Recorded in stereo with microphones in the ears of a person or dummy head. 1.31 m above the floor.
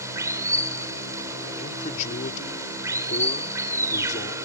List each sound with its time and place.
0.0 s running water: 20° right (ahead or behind)
1.6 s a man speaking: 45° left (ahead or behind)